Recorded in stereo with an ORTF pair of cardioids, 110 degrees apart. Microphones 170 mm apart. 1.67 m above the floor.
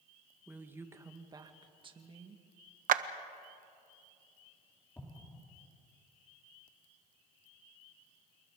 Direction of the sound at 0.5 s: 10° right.